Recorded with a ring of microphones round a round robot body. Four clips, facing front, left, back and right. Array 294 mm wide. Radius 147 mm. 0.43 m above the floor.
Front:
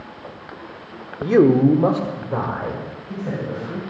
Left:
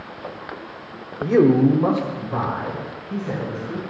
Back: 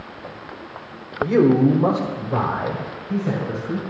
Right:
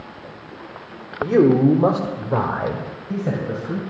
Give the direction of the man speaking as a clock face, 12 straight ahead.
12 o'clock.